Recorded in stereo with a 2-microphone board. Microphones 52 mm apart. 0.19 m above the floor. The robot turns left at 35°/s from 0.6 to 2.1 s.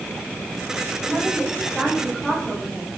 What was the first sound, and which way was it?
A woman speaking, 155° right.